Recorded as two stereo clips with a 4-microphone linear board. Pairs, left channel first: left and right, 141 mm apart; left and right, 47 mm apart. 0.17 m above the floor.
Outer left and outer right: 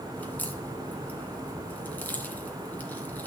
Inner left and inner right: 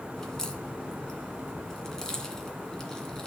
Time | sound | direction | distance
0.2 | a crack | 10° left (ahead or behind) | 2 m